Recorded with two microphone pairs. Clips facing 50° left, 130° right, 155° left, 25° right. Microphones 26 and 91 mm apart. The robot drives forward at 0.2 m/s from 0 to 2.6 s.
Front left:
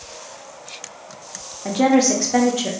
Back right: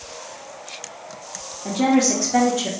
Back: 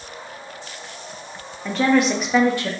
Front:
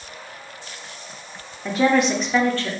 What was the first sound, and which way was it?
A woman speaking, 55° left.